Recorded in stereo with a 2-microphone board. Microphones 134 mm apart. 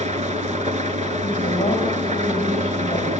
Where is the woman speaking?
50° left (ahead or behind), 6 m.